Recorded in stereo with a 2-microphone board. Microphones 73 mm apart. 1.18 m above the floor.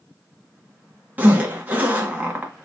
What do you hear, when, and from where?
1.2 s a zipper: 25° right (ahead or behind), 0.8 m